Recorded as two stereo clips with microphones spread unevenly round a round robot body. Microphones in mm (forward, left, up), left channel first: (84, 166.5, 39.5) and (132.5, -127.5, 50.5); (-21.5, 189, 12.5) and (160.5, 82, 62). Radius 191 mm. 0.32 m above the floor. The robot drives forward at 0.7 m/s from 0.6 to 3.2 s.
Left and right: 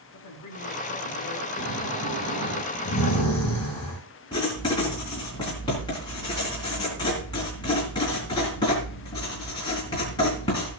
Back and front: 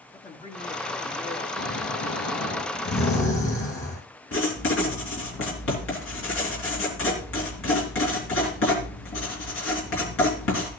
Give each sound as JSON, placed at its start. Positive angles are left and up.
{"t": 0.1, "sound": "a man speaking", "azimuth_deg": 105, "distance_m": 3.5}
{"t": 1.6, "sound": "snoring", "azimuth_deg": 175, "distance_m": 3.5}
{"t": 4.3, "sound": "writing", "azimuth_deg": 180, "distance_m": 3.5}